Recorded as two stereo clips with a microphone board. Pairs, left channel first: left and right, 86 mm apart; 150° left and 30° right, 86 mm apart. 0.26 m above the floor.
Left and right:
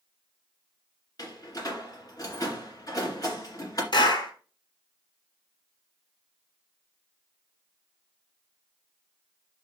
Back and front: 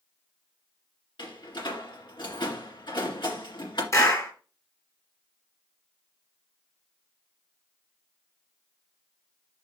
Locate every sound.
1.2 s a door slam: 130° left, 2 m
3.9 s a clap: 105° left, 2 m